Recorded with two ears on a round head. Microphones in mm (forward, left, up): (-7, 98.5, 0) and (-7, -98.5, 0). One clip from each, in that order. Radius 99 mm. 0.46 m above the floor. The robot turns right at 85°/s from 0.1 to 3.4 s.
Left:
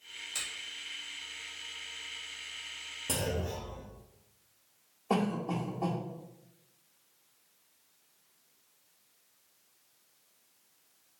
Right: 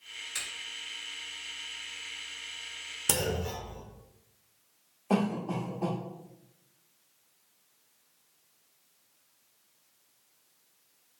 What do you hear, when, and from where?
0.3 s a finger snap: 10° right (ahead or behind), 1.7 m; by 0.5 s centre (ahead or behind), 1.7 m
3.1 s a clunk: 60° right (ahead or behind), 0.7 m; by 3.9 s 55° right (ahead or behind), 0.7 m
5.1 s a cough: 5° right (ahead or behind), 1.2 m